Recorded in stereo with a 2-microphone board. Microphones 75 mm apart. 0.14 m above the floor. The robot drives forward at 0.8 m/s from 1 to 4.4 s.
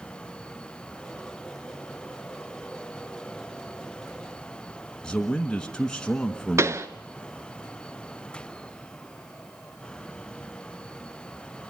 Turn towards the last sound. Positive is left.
turn(degrees=-40)  # may be behind; listen again after turning